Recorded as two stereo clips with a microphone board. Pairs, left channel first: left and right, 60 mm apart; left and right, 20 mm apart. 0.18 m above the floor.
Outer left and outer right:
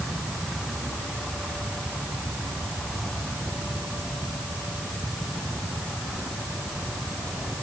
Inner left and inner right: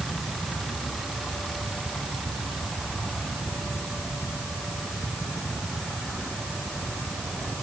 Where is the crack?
I don't hear a crack.